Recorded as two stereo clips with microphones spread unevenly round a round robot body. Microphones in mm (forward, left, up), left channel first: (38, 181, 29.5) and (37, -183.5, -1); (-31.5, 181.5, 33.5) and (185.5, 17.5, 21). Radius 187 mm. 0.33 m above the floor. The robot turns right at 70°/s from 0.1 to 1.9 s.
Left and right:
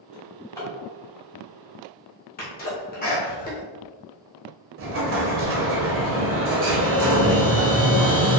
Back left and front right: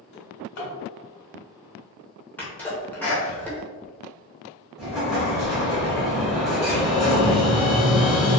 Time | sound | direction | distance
0.1 | a drawer | 145° left | 1.4 m
2.4 | a sneeze | 65° left | 0.9 m
4.8 | an explosion | 125° right | 0.7 m